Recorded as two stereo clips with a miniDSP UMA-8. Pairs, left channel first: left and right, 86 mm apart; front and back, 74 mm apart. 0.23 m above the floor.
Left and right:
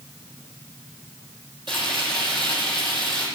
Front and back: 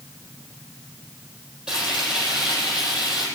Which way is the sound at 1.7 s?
100° right.